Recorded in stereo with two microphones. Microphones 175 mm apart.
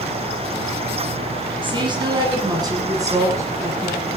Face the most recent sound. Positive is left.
turn(degrees=-15)  # may be behind; listen again after turning